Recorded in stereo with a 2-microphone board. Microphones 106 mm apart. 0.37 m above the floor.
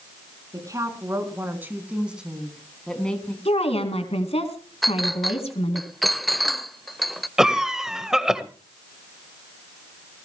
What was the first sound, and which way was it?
A woman speaking, 35° right (ahead or behind).